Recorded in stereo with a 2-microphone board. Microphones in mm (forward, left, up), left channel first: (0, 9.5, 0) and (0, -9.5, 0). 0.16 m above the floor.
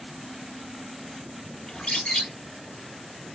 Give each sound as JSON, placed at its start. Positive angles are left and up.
{"t": 1.7, "sound": "a bird", "side_deg": 50, "distance_m": 0.8}